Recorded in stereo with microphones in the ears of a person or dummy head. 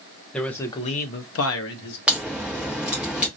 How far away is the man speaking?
About 0.7 m.